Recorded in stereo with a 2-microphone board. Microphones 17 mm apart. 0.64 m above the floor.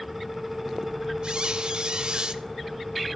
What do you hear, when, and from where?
1.2 s a squeak: 60° right (ahead or behind), 0.8 m